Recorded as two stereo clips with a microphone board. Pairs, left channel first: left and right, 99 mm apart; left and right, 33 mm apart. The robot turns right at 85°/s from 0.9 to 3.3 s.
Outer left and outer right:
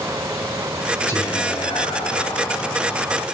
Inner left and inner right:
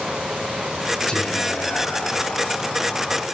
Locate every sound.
1.1 s whispering: 35° left, 3 m; by 3.2 s 140° right, 3 m